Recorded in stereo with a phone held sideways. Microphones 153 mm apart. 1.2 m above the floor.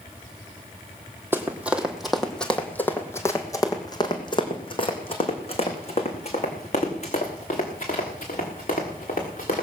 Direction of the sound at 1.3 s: 15° right (ahead or behind).